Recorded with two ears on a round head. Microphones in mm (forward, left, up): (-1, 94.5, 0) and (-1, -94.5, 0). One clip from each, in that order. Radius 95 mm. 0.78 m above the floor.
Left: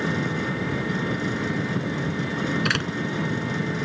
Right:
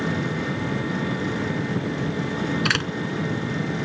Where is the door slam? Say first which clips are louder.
Right 3 dB; 15° right (ahead or behind).